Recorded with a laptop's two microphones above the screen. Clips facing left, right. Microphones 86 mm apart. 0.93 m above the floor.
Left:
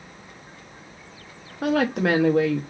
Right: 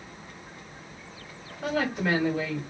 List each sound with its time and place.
1.6 s a woman speaking: 70° left (ahead or behind), 0.7 m